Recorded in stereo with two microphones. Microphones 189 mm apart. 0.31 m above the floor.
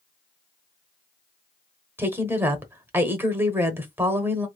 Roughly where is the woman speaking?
Centre.